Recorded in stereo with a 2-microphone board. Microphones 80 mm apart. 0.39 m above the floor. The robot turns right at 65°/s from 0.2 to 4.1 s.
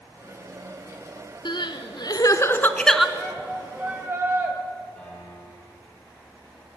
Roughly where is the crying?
Left.